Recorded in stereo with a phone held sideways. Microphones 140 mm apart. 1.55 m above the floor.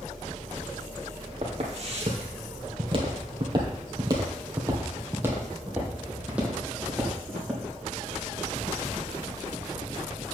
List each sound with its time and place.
1.4 s footsteps: 50° right (ahead or behind), 2.5 m; by 7.6 s centre (ahead or behind), 3.5 m